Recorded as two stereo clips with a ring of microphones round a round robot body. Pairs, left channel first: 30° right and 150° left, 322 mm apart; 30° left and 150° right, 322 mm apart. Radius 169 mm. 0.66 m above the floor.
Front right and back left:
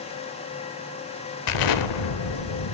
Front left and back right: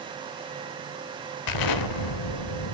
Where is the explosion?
Straight ahead, 1.0 m.